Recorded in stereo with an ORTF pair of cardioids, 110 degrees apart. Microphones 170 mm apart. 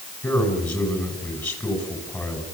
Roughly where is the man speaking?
Ahead.